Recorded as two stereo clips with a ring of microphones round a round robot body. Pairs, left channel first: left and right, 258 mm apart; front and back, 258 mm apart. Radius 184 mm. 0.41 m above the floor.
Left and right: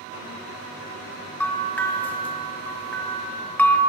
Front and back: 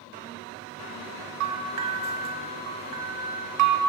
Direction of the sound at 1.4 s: 175° left.